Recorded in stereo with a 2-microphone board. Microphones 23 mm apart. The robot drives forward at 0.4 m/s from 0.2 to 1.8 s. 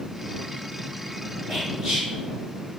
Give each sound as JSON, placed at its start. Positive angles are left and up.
{"t": 1.5, "sound": "whispering", "side_deg": -25, "distance_m": 1.7}